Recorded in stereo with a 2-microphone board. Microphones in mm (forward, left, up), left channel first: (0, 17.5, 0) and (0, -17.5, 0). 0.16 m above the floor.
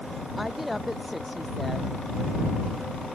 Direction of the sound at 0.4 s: Centre (ahead or behind).